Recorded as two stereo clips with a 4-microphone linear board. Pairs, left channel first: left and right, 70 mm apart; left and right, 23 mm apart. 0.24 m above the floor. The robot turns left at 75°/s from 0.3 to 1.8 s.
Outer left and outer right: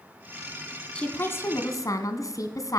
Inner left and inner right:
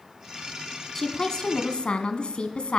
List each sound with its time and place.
0.9 s a woman speaking: 160° left, 1.6 m; by 2.8 s 100° left, 1.6 m